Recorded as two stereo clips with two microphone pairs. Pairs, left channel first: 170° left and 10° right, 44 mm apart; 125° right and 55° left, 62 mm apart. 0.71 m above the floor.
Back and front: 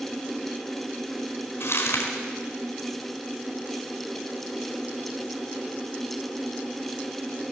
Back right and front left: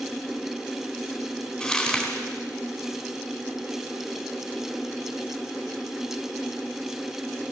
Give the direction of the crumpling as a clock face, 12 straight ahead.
7 o'clock.